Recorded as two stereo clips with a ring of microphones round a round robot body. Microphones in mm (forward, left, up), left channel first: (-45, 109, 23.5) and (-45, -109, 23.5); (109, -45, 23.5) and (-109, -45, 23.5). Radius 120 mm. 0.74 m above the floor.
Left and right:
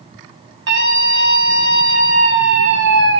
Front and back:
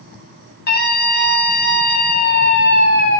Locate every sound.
0.7 s a scream: 45° right, 7 m